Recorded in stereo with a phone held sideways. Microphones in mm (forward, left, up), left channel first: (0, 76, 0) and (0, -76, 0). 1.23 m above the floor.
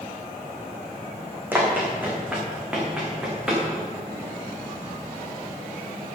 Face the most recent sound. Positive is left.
turn(degrees=-5)  # may be behind; listen again after turning